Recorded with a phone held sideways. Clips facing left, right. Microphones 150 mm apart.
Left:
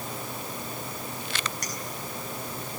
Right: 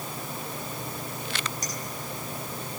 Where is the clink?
70° left (ahead or behind), 5 m.